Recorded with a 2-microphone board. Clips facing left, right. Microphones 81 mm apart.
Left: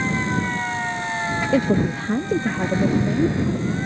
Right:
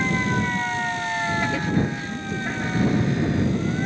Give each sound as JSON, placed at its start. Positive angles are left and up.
{"t": 1.5, "sound": "a woman speaking", "side_deg": 85}